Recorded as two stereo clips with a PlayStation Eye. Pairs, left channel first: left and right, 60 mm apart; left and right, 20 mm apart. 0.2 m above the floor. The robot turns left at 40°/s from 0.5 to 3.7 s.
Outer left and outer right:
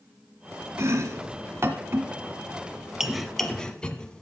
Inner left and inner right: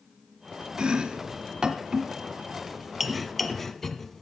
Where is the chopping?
50° right (ahead or behind), 0.6 m; by 4.2 s 15° left (ahead or behind), 0.6 m.